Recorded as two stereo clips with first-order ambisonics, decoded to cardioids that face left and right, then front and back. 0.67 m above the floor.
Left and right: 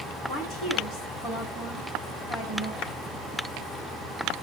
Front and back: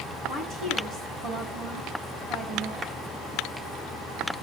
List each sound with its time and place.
0.3 s a woman speaking: 135° left, 6 m
2.8 s a clap: 110° left, 1.4 m